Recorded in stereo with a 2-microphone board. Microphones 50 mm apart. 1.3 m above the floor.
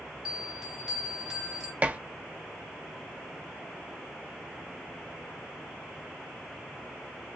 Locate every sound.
0.2 s a bell: 10° right (ahead or behind), 1.6 m
1.8 s dishes clattering: 25° right (ahead or behind), 0.6 m